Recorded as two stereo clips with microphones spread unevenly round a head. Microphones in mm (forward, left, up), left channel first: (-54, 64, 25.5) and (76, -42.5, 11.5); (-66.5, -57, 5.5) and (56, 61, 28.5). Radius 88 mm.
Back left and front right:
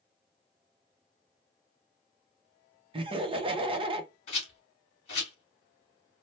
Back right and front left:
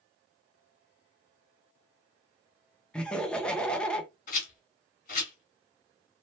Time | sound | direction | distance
2.9 | laughter | 65° right | 0.8 m
4.3 | a rattle | 175° right | 1.6 m